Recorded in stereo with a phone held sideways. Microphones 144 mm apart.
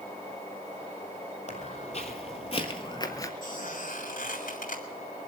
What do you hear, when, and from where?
1.5 s footsteps: 55° left (ahead or behind), 2.5 m; by 3.3 s 20° left (ahead or behind), 1.4 m
3.4 s a squeak: 80° left, 4 m